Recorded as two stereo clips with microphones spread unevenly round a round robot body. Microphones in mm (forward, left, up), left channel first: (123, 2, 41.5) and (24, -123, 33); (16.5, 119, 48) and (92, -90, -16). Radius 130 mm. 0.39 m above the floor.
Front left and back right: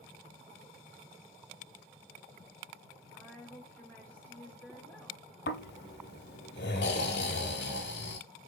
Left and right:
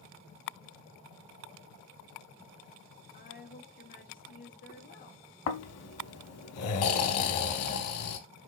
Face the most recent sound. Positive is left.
turn(degrees=90)